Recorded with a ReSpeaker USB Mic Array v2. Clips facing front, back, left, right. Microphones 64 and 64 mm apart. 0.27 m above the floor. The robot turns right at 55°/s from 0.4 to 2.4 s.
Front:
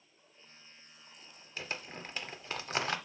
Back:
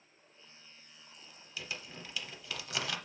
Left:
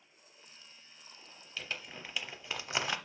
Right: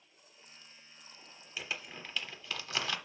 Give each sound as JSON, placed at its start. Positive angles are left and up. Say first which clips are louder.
{"t": 1.6, "sound": "crumpling", "louder": "front 3 dB, right 1 dB", "azimuth_deg": -15, "distance_m": 0.8}